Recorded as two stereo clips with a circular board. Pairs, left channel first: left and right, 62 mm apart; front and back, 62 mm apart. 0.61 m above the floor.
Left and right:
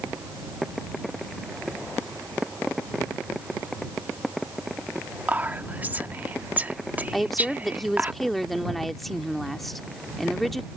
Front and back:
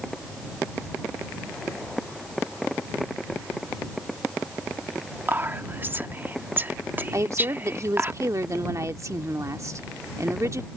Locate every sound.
5.3 s whispering: 140° right
7.1 s a woman speaking: 175° left